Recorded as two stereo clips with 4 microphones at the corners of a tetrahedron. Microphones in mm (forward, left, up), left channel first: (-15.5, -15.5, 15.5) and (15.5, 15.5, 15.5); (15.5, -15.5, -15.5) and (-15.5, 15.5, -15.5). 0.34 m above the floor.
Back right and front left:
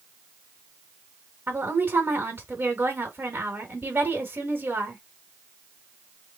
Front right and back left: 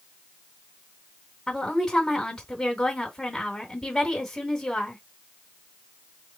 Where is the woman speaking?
25° left, 1.7 m.